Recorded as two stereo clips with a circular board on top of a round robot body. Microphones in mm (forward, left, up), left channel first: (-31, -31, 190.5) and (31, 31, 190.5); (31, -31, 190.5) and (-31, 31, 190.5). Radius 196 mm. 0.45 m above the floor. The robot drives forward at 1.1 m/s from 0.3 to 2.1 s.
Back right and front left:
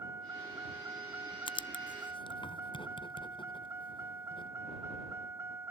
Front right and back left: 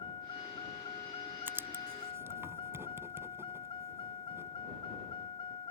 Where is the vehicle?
15° right; by 5.7 s 20° right.